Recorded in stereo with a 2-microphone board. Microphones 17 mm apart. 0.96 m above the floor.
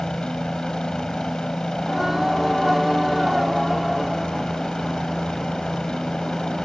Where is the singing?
20° right (ahead or behind).